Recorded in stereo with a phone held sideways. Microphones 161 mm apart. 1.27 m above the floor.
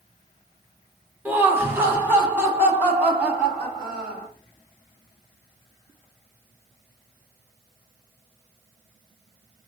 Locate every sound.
1.2 s laughter: 10° right (ahead or behind), 0.9 m